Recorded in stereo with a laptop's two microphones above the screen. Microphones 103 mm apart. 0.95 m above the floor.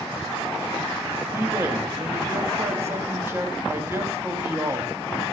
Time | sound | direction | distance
1.3 | a man speaking | 25° right (ahead or behind) | 1.1 m